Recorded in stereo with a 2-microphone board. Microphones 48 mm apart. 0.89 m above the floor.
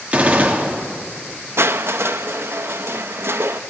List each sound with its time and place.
0.1 s a gunshot: 35° right (ahead or behind), 2 m
1.6 s crushing: 60° right (ahead or behind), 0.7 m